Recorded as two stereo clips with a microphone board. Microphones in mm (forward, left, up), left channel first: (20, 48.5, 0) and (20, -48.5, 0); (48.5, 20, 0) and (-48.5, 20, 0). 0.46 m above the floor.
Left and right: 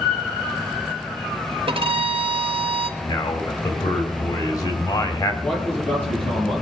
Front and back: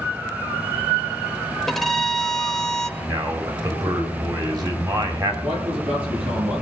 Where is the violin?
85° right, 0.8 m.